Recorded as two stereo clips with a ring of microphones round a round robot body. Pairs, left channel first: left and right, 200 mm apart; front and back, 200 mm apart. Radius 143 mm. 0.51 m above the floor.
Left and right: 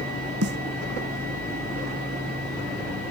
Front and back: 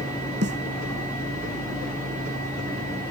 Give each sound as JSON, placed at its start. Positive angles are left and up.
{"t": 0.4, "sound": "a snare drum", "azimuth_deg": -125}